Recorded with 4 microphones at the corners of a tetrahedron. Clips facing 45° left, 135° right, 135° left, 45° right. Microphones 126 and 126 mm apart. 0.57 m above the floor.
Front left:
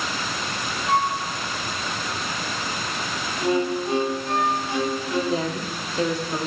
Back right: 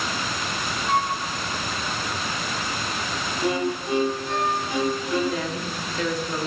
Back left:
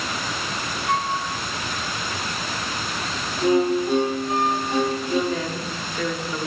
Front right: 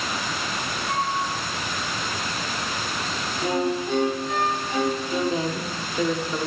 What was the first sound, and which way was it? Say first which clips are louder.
A flute: front left 2 dB, back left 3 dB; 115° left.